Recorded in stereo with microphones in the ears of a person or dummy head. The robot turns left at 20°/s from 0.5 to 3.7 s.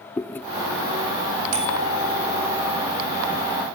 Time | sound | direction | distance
0.2 | chewing | 10° left (ahead or behind) | 1.0 m
1.5 | a bicycle bell | 85° right | 6.5 m